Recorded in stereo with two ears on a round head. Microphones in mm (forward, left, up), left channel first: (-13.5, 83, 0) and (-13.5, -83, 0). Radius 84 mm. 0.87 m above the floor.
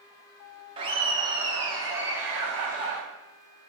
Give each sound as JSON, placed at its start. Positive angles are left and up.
{"t": 0.8, "sound": "laughter", "side_deg": -30, "distance_m": 0.8}